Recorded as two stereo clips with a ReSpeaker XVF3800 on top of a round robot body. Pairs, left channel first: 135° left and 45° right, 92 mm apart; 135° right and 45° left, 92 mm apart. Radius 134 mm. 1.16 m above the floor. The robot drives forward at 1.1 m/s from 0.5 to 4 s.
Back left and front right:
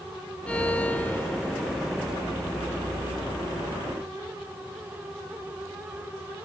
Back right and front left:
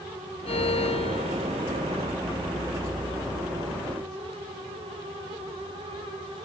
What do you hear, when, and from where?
0.5 s a violin: 145° right; by 1.6 s 155° right